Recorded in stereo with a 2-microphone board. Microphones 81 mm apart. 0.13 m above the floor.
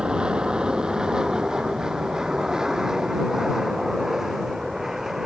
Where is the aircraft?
10° right (ahead or behind); by 5.3 s 5° right (ahead or behind).